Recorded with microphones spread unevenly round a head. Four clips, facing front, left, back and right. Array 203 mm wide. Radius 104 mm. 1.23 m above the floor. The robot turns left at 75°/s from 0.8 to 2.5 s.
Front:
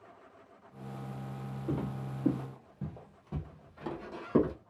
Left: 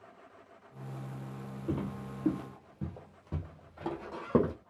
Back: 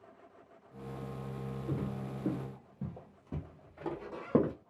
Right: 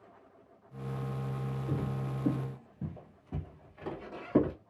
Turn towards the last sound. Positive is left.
turn(degrees=125)